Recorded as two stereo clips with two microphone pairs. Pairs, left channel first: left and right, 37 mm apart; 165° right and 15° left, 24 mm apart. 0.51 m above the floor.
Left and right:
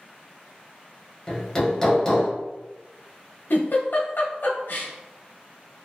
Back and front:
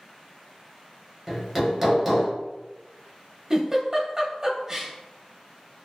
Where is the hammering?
70° left, 0.7 m.